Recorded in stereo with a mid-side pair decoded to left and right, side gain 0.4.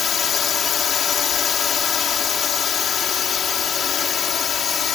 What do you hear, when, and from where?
0.0 s a drone: 65° left